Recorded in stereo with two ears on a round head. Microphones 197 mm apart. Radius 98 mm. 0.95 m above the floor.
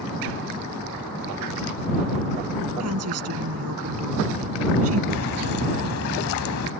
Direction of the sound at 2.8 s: 75° right (ahead or behind).